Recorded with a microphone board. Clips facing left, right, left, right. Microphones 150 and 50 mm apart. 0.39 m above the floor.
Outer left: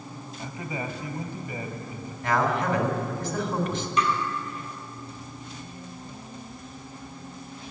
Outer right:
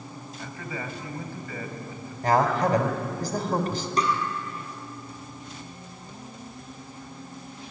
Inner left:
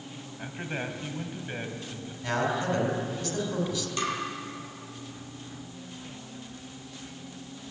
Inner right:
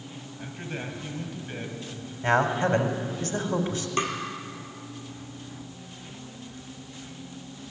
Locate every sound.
0.4 s a man speaking: 20° left (ahead or behind), 2.5 m
2.2 s a man speaking: 40° right (ahead or behind), 3 m
4.0 s tapping: 35° right (ahead or behind), 3.5 m